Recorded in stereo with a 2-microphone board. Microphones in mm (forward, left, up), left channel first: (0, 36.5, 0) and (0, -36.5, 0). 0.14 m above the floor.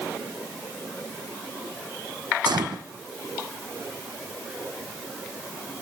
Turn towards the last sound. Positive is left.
turn(degrees=-85)